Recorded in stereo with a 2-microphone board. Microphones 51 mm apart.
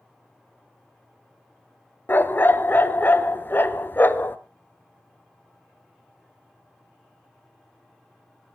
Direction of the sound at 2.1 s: 45° left (ahead or behind).